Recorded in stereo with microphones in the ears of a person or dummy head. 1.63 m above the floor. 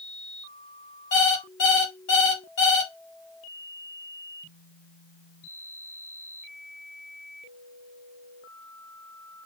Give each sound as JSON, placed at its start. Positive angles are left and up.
{"t": 1.1, "sound": "an alarm clock", "side_deg": 50, "distance_m": 1.7}